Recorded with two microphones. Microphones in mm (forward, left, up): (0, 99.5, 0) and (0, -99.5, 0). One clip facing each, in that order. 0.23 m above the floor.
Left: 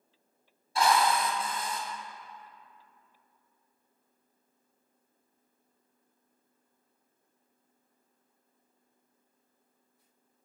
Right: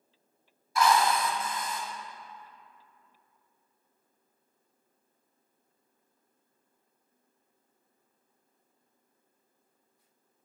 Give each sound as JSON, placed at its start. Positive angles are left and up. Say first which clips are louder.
{"t": 0.8, "sound": "a drill", "louder": "right 1 dB", "side_deg": 30, "distance_m": 1.1}